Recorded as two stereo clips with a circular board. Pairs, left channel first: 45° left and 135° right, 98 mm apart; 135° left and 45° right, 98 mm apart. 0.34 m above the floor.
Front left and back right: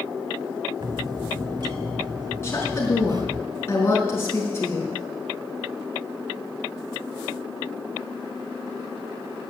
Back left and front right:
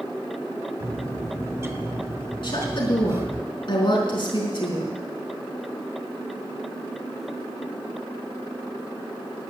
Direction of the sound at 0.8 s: 105° right.